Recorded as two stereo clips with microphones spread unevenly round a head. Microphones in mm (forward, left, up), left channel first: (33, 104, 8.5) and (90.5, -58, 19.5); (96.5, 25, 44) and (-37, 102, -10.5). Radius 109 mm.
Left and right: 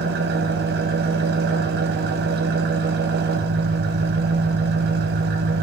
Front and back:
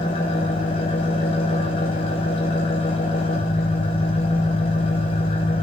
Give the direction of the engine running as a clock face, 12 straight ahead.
2 o'clock.